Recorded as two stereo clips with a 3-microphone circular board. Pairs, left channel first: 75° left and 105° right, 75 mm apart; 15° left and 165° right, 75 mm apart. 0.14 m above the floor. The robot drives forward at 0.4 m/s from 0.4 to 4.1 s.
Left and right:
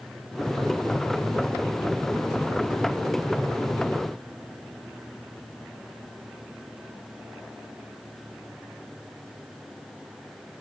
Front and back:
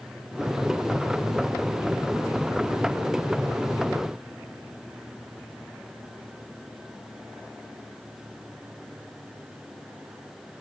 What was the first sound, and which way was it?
Only background noise.